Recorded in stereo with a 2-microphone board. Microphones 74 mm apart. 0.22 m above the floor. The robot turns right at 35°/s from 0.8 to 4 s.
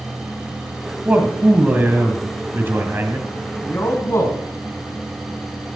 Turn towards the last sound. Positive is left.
turn(degrees=40)  # may be behind; listen again after turning